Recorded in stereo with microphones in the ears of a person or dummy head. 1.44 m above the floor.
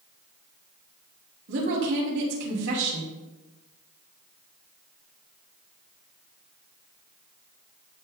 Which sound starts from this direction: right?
A woman speaking, at 1.5 s.